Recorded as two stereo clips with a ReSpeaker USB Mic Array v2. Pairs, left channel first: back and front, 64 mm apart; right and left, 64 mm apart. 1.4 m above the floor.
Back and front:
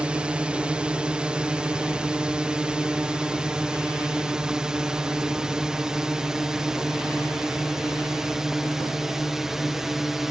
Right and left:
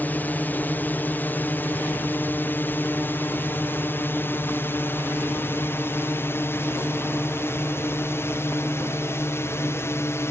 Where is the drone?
60° right; by 10.3 s 80° right.